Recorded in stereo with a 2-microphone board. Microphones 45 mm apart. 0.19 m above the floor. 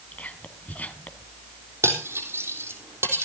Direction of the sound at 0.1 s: 35° left (ahead or behind).